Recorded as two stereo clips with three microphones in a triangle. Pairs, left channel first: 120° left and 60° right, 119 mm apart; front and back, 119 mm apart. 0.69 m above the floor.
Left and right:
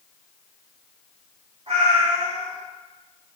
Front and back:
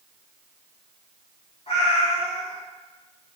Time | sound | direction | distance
1.7 | a cat meowing | 35° right | 1.2 m